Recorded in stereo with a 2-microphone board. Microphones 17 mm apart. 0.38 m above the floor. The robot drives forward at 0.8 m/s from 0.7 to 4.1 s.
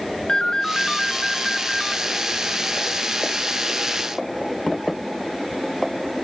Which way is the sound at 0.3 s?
40° left (ahead or behind).